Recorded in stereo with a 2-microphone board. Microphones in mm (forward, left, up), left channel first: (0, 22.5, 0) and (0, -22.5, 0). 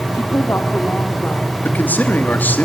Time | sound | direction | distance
0.1 | a woman speaking | 65° left (ahead or behind) | 2 m
1.6 | a man speaking | 40° left (ahead or behind) | 3 m